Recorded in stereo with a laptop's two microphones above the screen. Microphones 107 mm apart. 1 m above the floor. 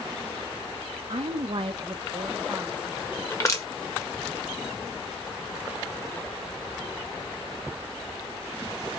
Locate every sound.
1.1 s a woman speaking: 75° right (ahead or behind), 0.7 m; by 3.2 s 5° right (ahead or behind), 1.0 m
3.3 s crushing: 30° left (ahead or behind), 1.5 m